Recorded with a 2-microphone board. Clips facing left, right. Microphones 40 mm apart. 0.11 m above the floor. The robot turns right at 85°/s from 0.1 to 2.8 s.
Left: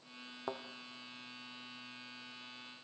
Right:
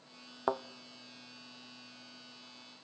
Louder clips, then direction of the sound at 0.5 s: Right 9 dB; 45° right (ahead or behind).